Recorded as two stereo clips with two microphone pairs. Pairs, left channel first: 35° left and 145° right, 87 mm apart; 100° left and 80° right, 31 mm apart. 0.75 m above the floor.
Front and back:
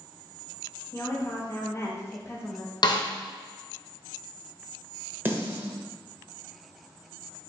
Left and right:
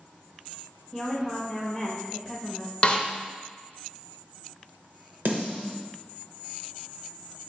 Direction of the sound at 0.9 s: 25° left.